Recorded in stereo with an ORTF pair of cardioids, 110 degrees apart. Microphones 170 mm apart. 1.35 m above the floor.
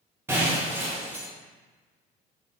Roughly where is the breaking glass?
Ahead.